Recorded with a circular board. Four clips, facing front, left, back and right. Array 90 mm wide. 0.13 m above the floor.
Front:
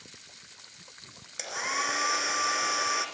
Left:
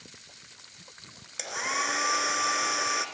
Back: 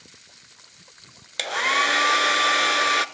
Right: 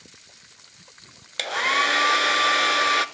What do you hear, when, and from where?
1.4 s a hair dryer: 140° right, 0.8 m